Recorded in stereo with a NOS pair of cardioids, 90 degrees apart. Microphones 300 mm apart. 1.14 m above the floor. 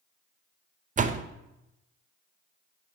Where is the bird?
I don't hear a bird.